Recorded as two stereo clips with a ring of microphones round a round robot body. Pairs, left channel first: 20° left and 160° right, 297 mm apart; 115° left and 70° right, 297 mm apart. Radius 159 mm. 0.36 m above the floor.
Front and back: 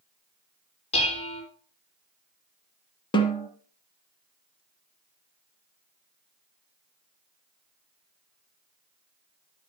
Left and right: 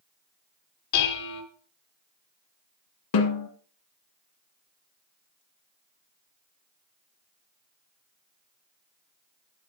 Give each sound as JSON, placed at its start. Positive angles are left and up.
{"t": 0.9, "sound": "dishes clattering", "azimuth_deg": 95, "distance_m": 3.0}
{"t": 3.1, "sound": "a snare drum", "azimuth_deg": 95, "distance_m": 1.7}